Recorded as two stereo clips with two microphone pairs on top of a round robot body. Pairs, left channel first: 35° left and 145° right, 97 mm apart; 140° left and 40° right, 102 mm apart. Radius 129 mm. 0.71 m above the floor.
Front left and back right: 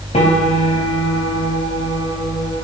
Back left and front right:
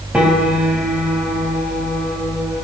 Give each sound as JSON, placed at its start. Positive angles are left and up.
{"t": 0.1, "sound": "a piano", "azimuth_deg": 45, "distance_m": 4.0}